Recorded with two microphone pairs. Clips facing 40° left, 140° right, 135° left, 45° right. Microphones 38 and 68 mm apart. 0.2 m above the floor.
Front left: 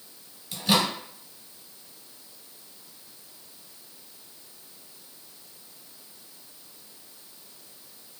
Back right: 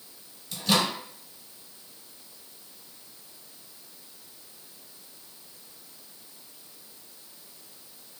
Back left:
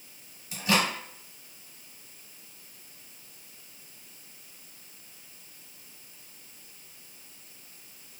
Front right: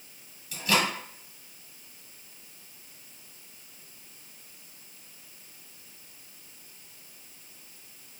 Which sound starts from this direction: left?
A microwave, at 0.5 s.